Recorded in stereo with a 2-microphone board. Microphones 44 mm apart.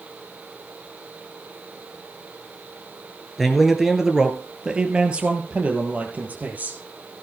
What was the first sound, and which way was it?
A man speaking, centre (ahead or behind).